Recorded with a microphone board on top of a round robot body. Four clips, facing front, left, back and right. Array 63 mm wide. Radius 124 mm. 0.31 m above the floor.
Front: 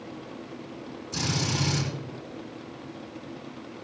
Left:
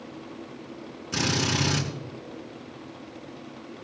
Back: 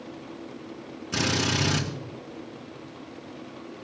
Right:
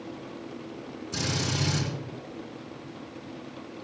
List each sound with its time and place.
1.1 s a drill: 145° left, 4.5 m